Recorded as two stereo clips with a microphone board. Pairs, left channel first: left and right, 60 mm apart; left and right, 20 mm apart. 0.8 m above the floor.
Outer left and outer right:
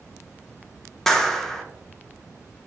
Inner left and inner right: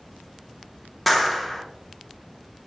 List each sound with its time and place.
1.1 s a clap: 5° left (ahead or behind), 0.6 m